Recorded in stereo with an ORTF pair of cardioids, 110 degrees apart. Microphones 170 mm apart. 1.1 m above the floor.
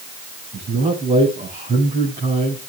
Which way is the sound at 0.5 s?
35° right.